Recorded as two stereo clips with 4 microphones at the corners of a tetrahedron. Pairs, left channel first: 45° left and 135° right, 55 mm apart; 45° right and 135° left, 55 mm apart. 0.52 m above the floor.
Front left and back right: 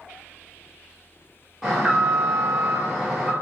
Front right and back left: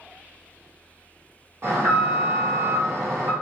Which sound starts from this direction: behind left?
An alarm, at 1.6 s.